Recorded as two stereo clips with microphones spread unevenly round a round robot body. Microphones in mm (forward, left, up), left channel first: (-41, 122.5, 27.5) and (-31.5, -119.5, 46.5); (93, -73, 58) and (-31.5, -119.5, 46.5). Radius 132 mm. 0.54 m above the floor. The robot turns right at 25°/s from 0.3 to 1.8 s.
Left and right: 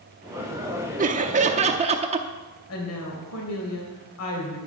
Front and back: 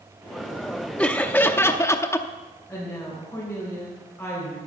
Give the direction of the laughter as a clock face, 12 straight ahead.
2 o'clock.